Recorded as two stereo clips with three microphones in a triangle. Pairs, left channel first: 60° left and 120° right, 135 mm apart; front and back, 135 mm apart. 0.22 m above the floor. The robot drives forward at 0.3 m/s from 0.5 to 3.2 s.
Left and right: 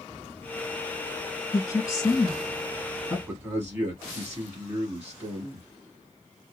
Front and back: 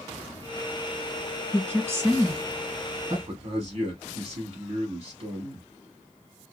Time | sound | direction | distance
1.5 | a woman speaking | 110° left | 2 m
3.3 | a man speaking | 170° left | 1.3 m